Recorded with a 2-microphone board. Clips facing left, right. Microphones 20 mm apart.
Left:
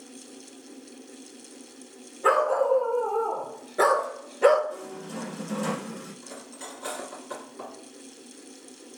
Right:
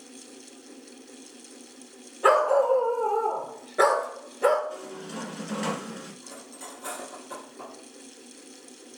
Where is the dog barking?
75° right (ahead or behind), 1.7 m; by 4.6 s 30° left (ahead or behind), 1.2 m.